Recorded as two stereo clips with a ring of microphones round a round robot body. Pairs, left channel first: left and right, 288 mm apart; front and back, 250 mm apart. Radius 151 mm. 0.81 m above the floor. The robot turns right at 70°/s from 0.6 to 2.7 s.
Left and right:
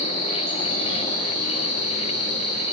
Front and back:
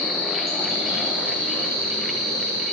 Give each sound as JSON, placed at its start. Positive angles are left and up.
{"t": 0.0, "sound": "an insect", "azimuth_deg": 50, "distance_m": 6.0}